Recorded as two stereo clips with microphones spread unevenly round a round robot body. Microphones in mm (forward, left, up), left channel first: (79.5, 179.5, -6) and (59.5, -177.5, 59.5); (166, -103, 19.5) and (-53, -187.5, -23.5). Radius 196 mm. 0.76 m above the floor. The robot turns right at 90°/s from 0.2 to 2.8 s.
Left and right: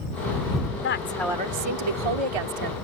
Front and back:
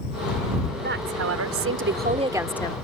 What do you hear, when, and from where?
0.8 s a woman speaking: 140° left; by 2.7 s 50° right